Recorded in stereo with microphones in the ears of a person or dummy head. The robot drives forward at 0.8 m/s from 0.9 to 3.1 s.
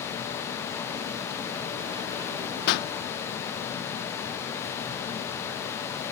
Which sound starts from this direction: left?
A pop, at 2.7 s.